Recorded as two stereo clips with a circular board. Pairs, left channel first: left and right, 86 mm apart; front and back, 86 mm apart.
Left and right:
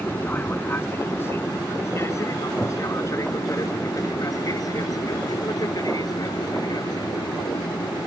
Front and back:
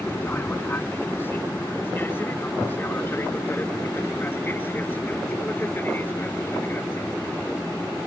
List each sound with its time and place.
0.0 s an aircraft: 40° left; by 8.1 s 65° left